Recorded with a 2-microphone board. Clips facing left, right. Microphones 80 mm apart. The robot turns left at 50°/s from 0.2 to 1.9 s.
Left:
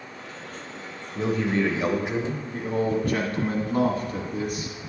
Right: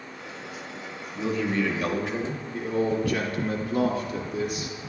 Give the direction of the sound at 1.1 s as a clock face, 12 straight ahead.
10 o'clock.